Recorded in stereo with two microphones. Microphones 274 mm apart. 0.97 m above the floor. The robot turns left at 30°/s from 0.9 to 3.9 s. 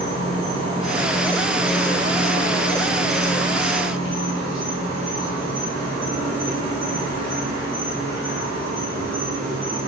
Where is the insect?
20° right, 3 m; by 9.9 s 110° right, 3 m.